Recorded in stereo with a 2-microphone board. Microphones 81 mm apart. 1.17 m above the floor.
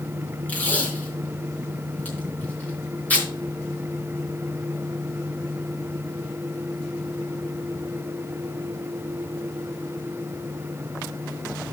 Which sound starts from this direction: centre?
Tape being pulled, at 0.5 s.